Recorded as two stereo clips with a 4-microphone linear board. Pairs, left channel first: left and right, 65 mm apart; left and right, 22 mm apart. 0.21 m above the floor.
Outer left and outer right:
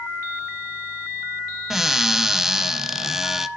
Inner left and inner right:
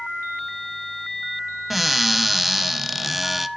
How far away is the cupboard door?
About 0.7 m.